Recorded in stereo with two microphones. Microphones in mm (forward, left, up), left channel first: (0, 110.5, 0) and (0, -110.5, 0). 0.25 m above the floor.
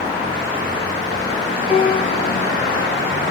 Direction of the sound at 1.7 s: 10° right (ahead or behind).